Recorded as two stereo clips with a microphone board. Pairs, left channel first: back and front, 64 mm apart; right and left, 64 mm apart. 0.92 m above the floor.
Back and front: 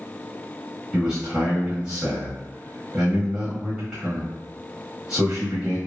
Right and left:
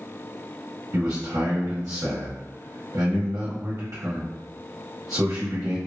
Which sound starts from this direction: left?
A man speaking, at 0.9 s.